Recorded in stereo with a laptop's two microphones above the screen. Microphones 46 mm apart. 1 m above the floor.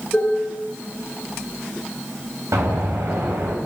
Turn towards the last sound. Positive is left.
turn(degrees=-80)